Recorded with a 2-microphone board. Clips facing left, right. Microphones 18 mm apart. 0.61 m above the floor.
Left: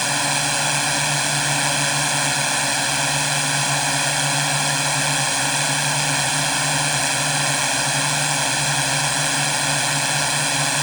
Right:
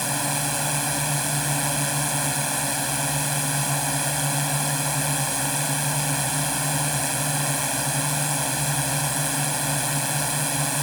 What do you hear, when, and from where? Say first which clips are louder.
0.0 s a drone: left 6 dB; 40° left (ahead or behind)